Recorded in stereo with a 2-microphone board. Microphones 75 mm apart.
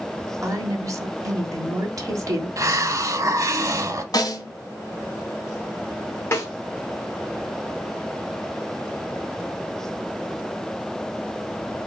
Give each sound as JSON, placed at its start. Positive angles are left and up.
{"t": 0.4, "sound": "a woman speaking", "side_deg": -50, "distance_m": 1.3}
{"t": 2.6, "sound": "a hiss", "side_deg": -50, "distance_m": 0.7}
{"t": 4.1, "sound": "a snare drum", "side_deg": 60, "distance_m": 1.2}
{"t": 6.3, "sound": "a snare drum", "side_deg": 35, "distance_m": 2.0}